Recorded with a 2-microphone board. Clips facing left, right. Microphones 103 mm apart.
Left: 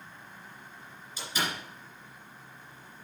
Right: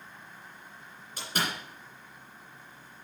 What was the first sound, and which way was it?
A door slam, 55° right (ahead or behind).